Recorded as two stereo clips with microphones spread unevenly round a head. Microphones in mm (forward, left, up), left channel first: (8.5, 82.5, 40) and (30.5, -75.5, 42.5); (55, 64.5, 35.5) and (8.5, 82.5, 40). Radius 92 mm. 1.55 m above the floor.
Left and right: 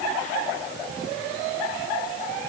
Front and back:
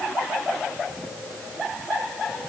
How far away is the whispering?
I don't hear whispering.